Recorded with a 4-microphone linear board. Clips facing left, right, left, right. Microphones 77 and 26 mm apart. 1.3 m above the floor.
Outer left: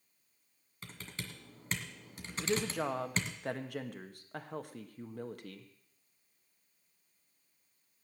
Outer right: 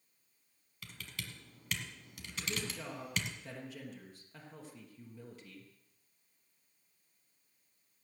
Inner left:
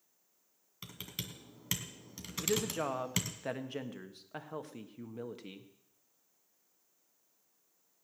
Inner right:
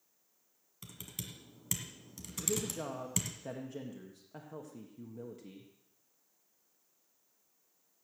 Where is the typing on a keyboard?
35° left (ahead or behind), 1.6 m.